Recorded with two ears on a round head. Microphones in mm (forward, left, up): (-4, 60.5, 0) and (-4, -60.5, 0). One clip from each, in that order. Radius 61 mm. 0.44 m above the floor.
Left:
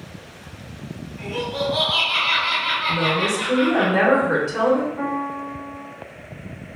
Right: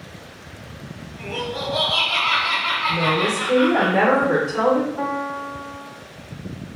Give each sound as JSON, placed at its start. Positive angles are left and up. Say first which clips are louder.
{"t": 1.2, "sound": "laughter", "louder": "left 2 dB", "side_deg": 10, "distance_m": 1.4}
{"t": 2.9, "sound": "a woman speaking", "louder": "right 1 dB", "side_deg": 20, "distance_m": 0.8}
{"t": 5.0, "sound": "a piano", "louder": "right 1 dB", "side_deg": -50, "distance_m": 0.9}